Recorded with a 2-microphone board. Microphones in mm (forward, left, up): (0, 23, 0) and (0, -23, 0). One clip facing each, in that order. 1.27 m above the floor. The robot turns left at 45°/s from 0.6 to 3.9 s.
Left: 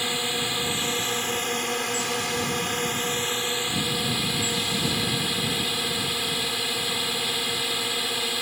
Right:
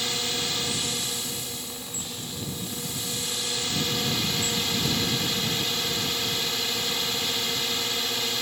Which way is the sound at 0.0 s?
160° left.